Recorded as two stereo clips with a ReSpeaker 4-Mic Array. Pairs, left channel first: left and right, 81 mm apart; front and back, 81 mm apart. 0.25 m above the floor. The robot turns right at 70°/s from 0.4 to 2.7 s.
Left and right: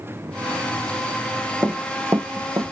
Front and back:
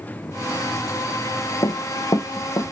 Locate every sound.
1.6 s running footsteps: 30° right, 0.8 m; by 2.7 s 45° right, 0.8 m